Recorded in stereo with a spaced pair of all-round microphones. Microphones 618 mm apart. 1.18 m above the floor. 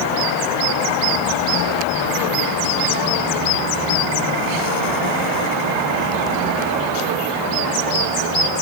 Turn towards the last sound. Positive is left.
No sound to turn to.